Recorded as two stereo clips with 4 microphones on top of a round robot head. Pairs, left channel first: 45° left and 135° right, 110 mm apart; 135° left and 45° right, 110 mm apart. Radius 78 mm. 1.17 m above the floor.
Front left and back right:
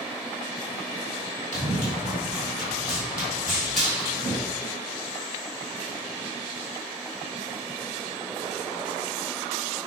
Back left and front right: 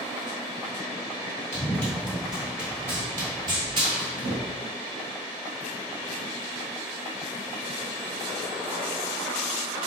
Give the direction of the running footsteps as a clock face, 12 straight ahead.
6 o'clock.